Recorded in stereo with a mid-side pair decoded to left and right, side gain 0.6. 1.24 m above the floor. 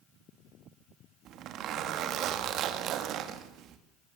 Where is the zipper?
60° right, 2.5 m.